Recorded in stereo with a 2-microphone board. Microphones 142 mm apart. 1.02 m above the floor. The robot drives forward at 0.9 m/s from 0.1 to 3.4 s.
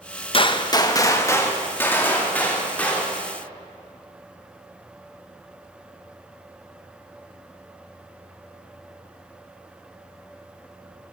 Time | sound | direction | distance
0.3 | a gunshot | 40° left (ahead or behind) | 0.8 m